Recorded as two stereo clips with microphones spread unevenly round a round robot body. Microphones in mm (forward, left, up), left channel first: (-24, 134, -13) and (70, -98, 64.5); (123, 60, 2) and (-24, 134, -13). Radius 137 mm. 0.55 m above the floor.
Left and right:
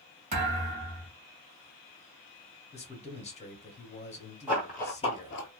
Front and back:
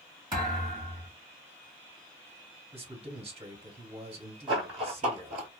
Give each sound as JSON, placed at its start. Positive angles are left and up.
{"t": 0.3, "sound": "a thud", "azimuth_deg": -135, "distance_m": 1.3}
{"t": 2.7, "sound": "a man speaking", "azimuth_deg": 130, "distance_m": 0.9}
{"t": 4.5, "sound": "running footsteps", "azimuth_deg": -140, "distance_m": 0.9}